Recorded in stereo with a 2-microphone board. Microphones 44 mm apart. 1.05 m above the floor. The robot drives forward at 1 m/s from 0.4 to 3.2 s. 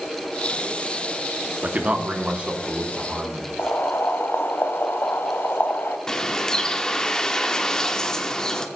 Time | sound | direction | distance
1.6 | a man speaking | 35° right (ahead or behind) | 2 m
3.6 | boiling | 60° left (ahead or behind) | 1.5 m
6.1 | a bird | 15° left (ahead or behind) | 1.2 m